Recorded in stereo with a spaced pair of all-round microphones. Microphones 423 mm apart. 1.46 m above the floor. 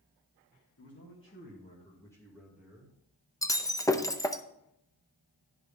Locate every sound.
0.8 s a man speaking: 35° left (ahead or behind), 2 m; by 2.9 s 10° right (ahead or behind), 2.5 m
3.4 s breaking glass: 10° left (ahead or behind), 0.6 m